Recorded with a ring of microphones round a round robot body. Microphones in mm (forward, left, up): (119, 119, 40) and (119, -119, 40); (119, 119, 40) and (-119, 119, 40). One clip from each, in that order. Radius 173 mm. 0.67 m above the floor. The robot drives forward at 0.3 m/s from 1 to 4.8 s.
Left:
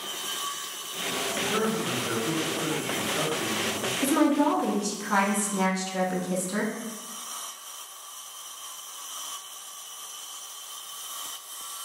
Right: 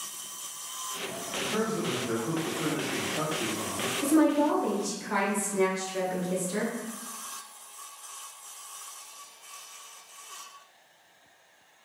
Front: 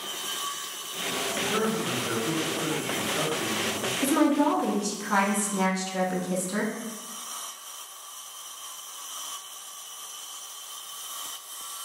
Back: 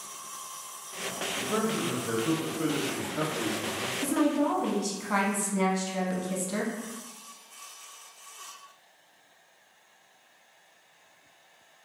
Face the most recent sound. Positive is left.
turn(degrees=95)